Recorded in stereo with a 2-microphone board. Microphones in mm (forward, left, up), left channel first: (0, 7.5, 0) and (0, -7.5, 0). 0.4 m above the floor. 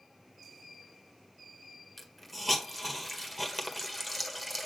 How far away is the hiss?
About 1.5 m.